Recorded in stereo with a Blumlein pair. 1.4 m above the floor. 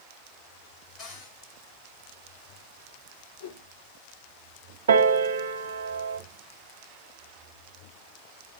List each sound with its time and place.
1.0 s a cupboard door: 25° left, 7.5 m
3.4 s a whoosh: 60° left, 2 m
4.9 s a piano: 60° right, 1.2 m